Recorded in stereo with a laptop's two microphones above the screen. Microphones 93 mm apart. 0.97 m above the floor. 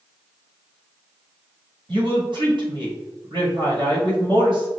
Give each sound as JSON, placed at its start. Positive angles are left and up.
{"t": 1.9, "sound": "a woman speaking", "side_deg": -60, "distance_m": 1.6}